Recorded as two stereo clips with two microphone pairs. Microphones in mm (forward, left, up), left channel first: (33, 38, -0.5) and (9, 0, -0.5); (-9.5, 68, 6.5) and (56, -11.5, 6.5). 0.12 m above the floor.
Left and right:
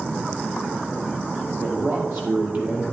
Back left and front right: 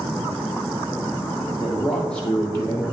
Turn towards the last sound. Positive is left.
turn(degrees=-175)